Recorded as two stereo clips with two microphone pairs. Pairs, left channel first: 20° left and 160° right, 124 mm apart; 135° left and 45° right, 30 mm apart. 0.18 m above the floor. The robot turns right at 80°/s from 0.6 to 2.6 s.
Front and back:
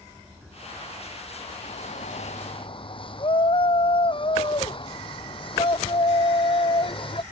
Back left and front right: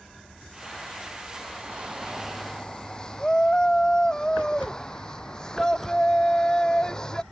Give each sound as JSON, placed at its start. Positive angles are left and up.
{"t": 1.6, "sound": "a shout", "azimuth_deg": -10}